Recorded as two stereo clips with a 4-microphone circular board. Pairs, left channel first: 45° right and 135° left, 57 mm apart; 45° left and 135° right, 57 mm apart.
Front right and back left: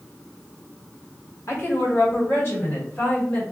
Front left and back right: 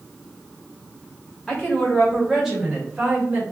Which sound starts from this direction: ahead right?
A woman speaking, at 1.5 s.